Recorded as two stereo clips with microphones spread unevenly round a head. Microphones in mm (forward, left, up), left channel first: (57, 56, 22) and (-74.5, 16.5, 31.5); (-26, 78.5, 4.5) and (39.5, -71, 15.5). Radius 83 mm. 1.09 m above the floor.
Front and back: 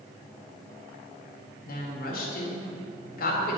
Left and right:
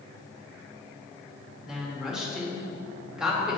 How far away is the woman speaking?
About 1.9 m.